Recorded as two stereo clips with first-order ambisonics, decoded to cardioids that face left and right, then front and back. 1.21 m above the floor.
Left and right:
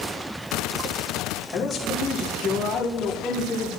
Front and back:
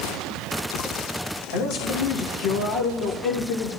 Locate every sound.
1.5 s a man speaking: 25° left, 3 m